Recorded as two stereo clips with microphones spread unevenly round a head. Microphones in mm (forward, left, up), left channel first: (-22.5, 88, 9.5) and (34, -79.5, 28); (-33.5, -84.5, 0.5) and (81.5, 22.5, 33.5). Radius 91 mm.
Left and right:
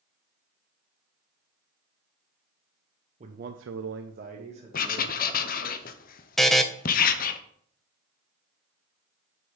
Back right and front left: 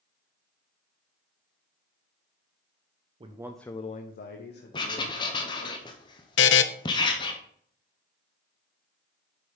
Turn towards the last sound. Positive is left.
turn(degrees=-165)